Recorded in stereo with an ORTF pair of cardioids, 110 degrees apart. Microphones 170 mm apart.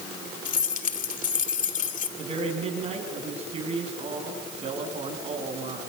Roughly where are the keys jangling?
Ahead left.